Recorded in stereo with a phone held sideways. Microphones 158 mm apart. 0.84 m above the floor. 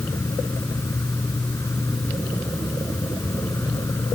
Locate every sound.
0.0 s an insect: 20° left (ahead or behind)